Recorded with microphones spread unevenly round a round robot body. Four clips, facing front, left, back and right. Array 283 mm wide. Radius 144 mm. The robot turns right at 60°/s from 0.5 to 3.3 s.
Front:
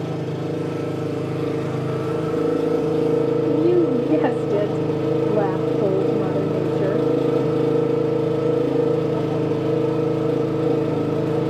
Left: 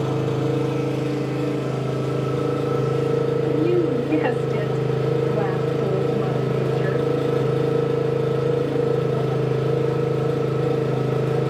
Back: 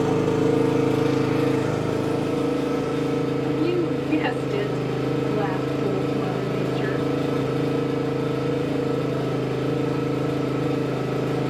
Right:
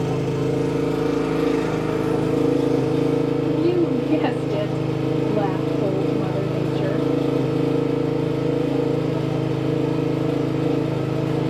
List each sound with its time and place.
0.0 s an engine running: straight behind, 2.0 m; by 11.5 s 15° right, 2.0 m
3.5 s a woman speaking: 20° right, 1.6 m